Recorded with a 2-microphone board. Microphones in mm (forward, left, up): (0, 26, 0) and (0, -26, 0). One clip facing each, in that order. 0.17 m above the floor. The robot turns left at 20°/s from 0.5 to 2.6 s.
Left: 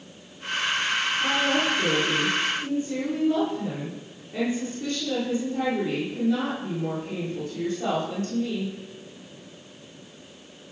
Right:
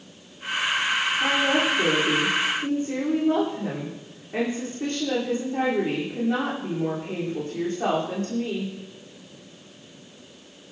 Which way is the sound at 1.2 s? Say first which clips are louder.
Right 2 dB; 65° right (ahead or behind).